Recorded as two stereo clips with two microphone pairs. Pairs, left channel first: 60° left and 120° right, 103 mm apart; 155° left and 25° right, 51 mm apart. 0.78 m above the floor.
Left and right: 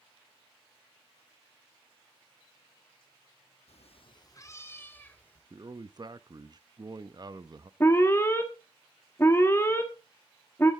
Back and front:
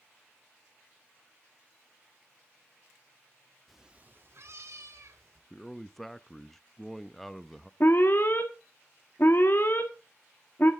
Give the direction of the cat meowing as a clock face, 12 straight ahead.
10 o'clock.